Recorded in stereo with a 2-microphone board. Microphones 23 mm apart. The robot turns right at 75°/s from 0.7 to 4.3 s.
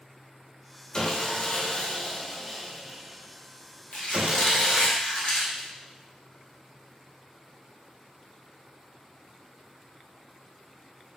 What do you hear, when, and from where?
0.9 s sawing: 45° left, 0.6 m; by 4.9 s 60° right, 0.6 m
3.9 s a squeak: 50° left (ahead or behind), 1.4 m; by 5.7 s 55° left (ahead or behind), 1.4 m